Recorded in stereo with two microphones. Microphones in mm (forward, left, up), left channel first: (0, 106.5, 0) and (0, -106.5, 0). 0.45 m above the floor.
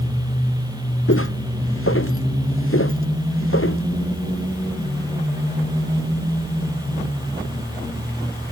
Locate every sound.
1.1 s footsteps: 70° left (ahead or behind); by 3.8 s 65° left (ahead or behind)